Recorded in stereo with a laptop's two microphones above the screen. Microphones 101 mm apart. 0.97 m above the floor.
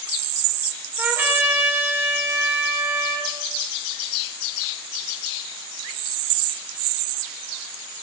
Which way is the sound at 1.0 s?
20° right (ahead or behind).